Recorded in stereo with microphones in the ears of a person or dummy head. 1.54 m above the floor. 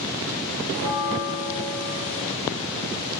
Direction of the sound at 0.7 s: 75° left (ahead or behind).